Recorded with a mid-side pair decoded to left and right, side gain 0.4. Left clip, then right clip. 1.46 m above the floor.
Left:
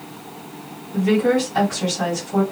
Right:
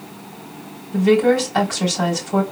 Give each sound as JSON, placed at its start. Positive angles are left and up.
{"t": 0.9, "sound": "a woman speaking", "azimuth_deg": -60, "distance_m": 3.5}